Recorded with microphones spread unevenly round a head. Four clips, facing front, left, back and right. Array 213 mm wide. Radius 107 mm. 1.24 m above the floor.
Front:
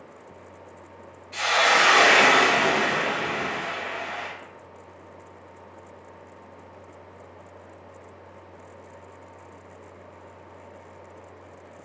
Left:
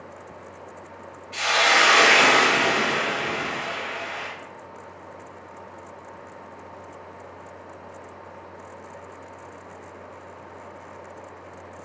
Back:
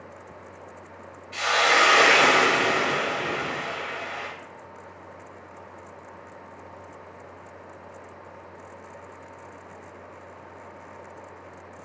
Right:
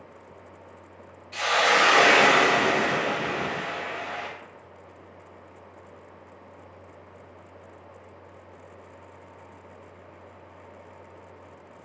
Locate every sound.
1.3 s a hiss: 80° right, 1.1 m